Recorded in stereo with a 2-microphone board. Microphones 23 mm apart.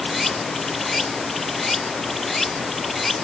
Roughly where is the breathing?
No breathing in this recording.